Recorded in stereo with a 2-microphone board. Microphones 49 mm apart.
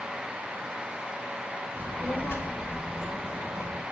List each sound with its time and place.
1.8 s a child speaking: 40° left (ahead or behind), 2.5 m; by 3.8 s 60° left (ahead or behind), 3 m